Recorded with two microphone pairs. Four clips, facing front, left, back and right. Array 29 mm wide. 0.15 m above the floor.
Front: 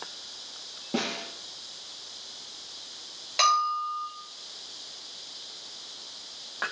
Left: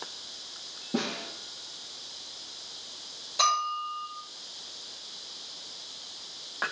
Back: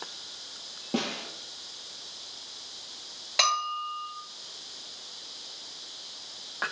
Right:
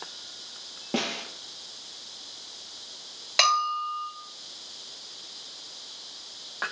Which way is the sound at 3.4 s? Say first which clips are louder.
Right 3 dB, front 3 dB; 105° right.